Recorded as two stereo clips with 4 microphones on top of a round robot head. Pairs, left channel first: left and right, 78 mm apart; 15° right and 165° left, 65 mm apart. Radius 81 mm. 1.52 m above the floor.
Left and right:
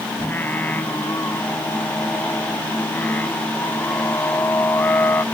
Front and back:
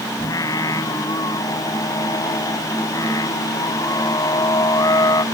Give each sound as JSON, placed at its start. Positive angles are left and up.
{"t": 0.2, "sound": "singing", "azimuth_deg": 20}